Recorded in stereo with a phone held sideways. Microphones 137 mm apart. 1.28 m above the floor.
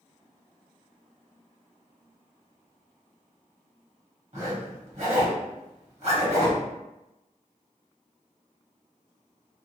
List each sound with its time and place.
4.3 s a zipper: 50° right (ahead or behind), 1.1 m